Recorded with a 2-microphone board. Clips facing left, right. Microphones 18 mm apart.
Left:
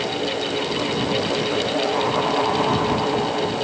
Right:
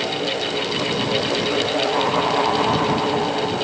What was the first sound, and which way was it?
Only background noise.